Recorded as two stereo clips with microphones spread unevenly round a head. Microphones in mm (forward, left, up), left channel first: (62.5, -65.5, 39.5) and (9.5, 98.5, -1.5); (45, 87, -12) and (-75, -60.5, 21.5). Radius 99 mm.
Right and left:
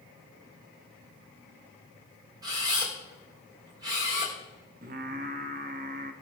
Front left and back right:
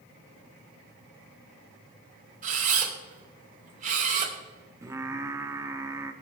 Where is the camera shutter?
Straight behind, 2.5 m.